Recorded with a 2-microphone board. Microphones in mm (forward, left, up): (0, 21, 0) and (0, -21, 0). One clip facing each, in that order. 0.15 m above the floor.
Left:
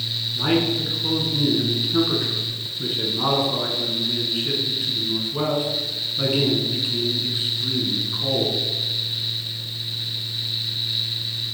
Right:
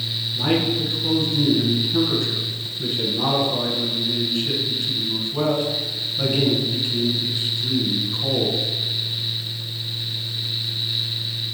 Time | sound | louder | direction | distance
0.3 | a man speaking | even | 20° left (ahead or behind) | 1.2 m